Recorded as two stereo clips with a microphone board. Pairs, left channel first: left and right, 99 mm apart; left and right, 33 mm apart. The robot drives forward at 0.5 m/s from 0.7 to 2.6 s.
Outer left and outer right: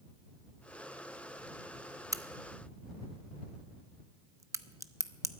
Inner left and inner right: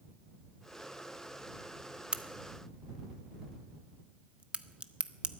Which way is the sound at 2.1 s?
35° right (ahead or behind).